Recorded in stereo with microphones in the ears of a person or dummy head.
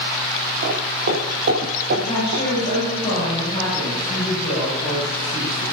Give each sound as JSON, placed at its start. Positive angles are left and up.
{"t": 0.6, "sound": "footsteps", "side_deg": -55, "distance_m": 2.5}
{"t": 1.9, "sound": "a woman speaking", "side_deg": 30, "distance_m": 9.0}